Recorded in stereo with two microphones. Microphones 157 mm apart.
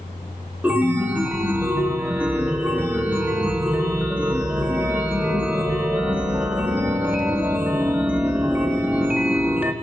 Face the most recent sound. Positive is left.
turn(degrees=-10)  # may be behind; listen again after turning